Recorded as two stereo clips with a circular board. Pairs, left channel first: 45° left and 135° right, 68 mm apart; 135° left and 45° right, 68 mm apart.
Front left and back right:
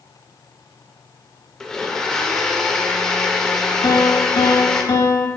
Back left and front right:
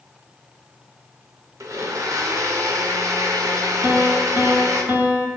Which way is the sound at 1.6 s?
35° right.